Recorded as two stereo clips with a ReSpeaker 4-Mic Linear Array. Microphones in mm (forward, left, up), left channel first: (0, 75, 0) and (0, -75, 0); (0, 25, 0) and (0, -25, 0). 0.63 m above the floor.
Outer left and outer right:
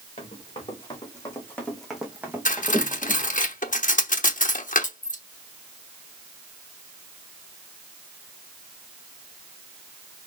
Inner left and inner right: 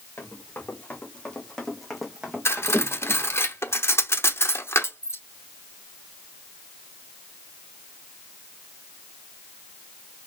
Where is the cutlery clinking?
60° left (ahead or behind), 0.9 m.